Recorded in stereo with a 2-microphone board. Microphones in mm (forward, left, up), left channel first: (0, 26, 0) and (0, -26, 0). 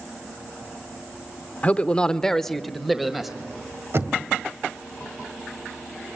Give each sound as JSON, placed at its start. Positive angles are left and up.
{"t": 1.6, "sound": "a man speaking", "side_deg": 30, "distance_m": 0.8}
{"t": 3.9, "sound": "knocking", "side_deg": -60, "distance_m": 2.0}